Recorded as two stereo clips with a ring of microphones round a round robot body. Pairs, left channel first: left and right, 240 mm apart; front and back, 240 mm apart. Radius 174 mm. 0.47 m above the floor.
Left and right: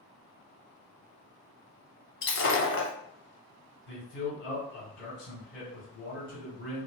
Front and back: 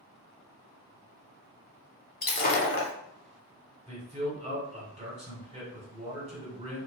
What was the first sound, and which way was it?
Breaking glass, 55° left.